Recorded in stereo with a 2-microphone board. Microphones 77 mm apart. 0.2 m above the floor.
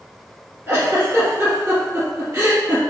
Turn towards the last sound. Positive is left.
turn(degrees=-30)  # may be behind; listen again after turning